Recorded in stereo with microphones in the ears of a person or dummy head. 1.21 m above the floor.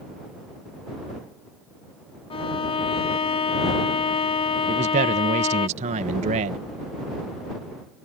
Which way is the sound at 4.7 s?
40° right (ahead or behind).